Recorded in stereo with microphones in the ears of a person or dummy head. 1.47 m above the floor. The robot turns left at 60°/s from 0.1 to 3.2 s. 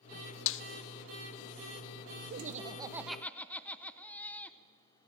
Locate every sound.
0.5 s a snare drum: 70° left (ahead or behind), 0.6 m; by 0.6 s 65° left (ahead or behind), 0.6 m
2.3 s laughter: 135° right, 0.9 m; by 4.6 s 170° left, 0.9 m